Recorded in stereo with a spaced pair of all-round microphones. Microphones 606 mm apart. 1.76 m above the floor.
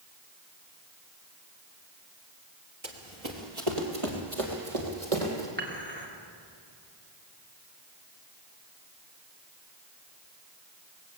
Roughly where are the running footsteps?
Right.